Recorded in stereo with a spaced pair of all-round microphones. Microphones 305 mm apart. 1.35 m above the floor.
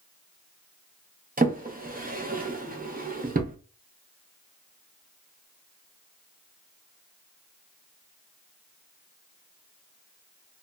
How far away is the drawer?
About 0.5 m.